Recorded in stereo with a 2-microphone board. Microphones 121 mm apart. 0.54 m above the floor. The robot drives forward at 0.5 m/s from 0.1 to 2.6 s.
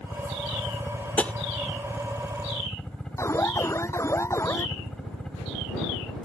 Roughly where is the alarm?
Left.